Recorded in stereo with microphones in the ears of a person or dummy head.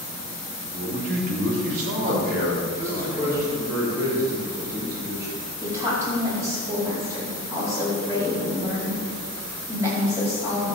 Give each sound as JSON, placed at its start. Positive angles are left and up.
{"t": 0.7, "sound": "a man speaking", "side_deg": -40, "distance_m": 2.5}
{"t": 2.8, "sound": "a man speaking", "side_deg": -15, "distance_m": 3.0}
{"t": 5.6, "sound": "a woman speaking", "side_deg": -15, "distance_m": 4.5}